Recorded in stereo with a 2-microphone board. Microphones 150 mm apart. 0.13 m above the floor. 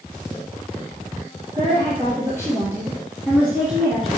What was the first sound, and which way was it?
A woman speaking, 20° right (ahead or behind).